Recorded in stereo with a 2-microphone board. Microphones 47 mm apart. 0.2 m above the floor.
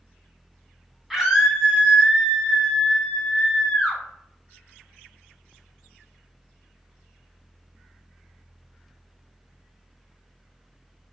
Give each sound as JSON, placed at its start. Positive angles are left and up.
{"t": 1.1, "sound": "a scream", "side_deg": -10, "distance_m": 1.3}